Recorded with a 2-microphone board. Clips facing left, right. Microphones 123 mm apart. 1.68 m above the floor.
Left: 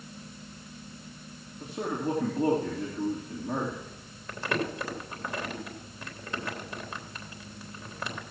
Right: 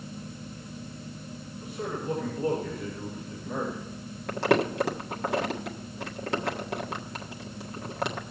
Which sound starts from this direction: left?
A man speaking, at 1.6 s.